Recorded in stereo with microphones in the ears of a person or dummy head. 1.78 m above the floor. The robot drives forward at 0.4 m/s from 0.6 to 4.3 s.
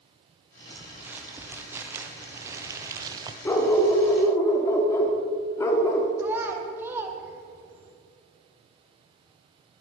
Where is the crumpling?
10° right (ahead or behind), 2 m; by 3.4 s 20° right (ahead or behind), 1.0 m.